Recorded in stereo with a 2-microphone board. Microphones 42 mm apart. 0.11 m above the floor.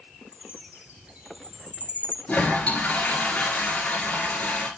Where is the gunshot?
I don't hear a gunshot.